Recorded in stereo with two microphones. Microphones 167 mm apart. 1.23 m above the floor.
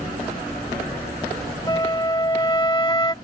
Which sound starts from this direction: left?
A flute, at 1.7 s.